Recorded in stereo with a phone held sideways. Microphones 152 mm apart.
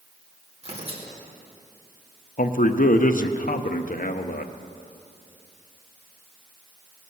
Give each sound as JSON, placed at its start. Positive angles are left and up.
{"t": 0.6, "sound": "tearing paper", "side_deg": -40, "distance_m": 2.0}
{"t": 2.4, "sound": "a man speaking", "side_deg": 65, "distance_m": 0.7}